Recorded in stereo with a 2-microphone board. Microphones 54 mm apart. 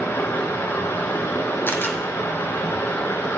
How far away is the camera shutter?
About 1.6 m.